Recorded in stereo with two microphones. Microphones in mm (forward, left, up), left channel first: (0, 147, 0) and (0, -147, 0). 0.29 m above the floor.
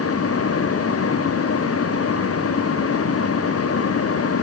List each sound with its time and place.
Only background noise.